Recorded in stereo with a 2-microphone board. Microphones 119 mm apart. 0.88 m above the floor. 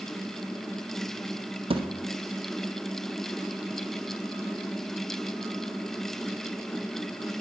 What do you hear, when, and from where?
1.7 s a thud: 50° right (ahead or behind), 0.6 m